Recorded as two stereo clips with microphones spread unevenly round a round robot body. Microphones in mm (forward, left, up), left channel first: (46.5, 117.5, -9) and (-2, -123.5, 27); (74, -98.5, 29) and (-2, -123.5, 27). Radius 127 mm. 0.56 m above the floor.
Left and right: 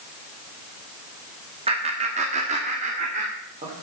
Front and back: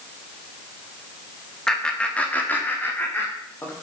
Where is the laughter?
55° right, 1.3 m; by 3.7 s 40° right, 2.5 m.